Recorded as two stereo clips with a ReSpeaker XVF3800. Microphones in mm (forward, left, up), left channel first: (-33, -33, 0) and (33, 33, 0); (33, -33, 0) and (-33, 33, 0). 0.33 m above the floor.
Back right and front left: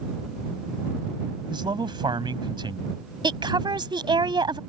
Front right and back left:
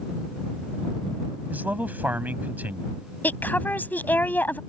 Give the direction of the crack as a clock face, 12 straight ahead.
I don't hear a crack.